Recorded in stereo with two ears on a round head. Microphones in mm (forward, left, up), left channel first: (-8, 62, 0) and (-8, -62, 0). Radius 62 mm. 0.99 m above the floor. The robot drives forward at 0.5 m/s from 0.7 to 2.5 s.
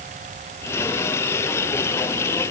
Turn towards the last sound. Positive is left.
No sound to turn to.